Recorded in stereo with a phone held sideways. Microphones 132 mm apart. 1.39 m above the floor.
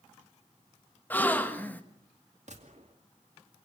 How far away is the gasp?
About 1.3 m.